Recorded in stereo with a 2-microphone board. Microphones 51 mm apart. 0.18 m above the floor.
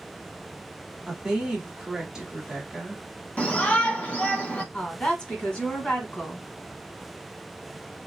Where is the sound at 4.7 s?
25° left (ahead or behind), 1.2 m.